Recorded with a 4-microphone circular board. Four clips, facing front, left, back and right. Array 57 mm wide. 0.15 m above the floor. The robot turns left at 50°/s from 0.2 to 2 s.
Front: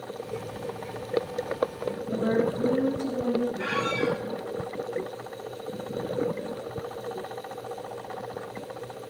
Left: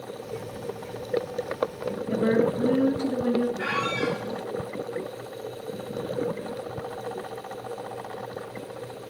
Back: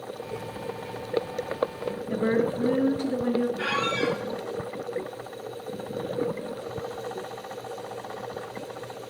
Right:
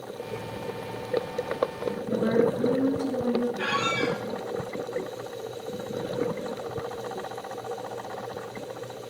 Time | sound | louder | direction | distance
2.1 | a woman speaking | left 1 dB, back 1 dB | 155° left | 2.5 m
3.6 | a squeak | even, back 1 dB | 145° right | 3.5 m